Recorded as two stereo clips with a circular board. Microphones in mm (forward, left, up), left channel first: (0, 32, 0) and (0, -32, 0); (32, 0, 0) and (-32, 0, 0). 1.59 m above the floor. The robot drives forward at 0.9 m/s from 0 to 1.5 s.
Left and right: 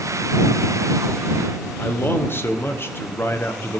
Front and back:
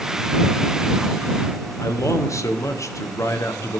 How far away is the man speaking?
About 1.3 m.